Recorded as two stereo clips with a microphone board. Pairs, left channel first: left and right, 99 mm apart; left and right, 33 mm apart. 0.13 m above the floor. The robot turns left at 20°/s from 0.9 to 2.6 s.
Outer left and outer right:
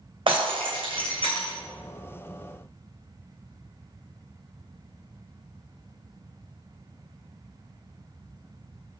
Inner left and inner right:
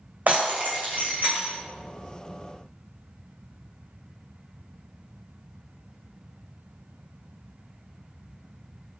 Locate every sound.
0.3 s breaking glass: 55° right (ahead or behind), 2 m; by 1.5 s 70° right (ahead or behind), 2 m